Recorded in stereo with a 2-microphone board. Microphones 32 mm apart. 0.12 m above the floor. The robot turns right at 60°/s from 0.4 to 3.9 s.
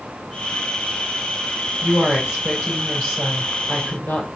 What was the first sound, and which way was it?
A woman speaking, 60° right.